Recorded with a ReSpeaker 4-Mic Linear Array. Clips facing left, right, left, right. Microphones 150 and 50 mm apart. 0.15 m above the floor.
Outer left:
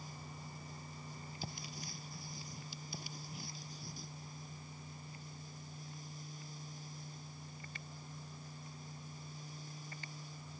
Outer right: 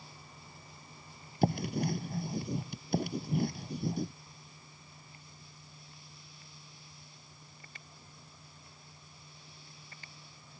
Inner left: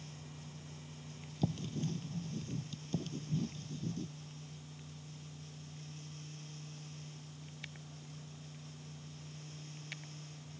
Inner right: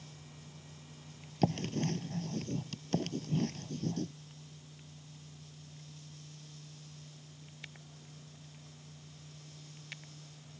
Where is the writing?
60° right (ahead or behind).